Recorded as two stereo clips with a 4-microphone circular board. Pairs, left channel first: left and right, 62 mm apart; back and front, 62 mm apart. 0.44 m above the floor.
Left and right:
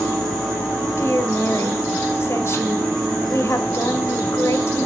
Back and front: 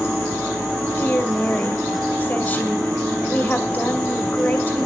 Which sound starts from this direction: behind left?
A woman speaking, at 1.0 s.